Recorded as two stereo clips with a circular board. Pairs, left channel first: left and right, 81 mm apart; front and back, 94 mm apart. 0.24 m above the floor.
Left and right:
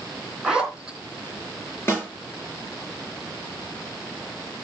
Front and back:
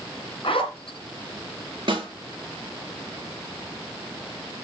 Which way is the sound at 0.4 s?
10° right.